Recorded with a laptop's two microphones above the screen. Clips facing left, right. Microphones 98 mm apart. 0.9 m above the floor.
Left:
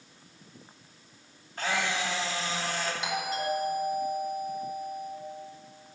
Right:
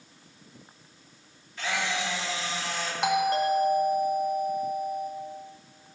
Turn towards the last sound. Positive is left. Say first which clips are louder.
# right 11 dB
turn(degrees=-60)  # may be behind; listen again after turning